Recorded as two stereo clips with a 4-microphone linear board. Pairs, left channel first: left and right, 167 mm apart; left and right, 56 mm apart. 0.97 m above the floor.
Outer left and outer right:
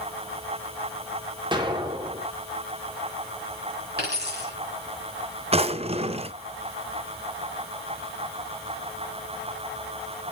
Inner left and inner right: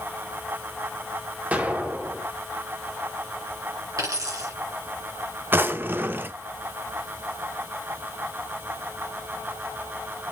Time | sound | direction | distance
1.5 | an explosion | 25° right (ahead or behind) | 1.4 m
4.0 | a dropped coin | 75° right (ahead or behind) | 4 m
5.5 | a drawer | 35° right (ahead or behind) | 0.6 m